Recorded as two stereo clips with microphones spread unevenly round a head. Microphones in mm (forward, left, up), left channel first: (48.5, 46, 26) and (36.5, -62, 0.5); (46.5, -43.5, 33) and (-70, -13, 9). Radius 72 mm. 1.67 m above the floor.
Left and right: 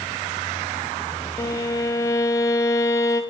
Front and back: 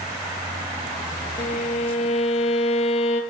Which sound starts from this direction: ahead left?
A violin, at 1.4 s.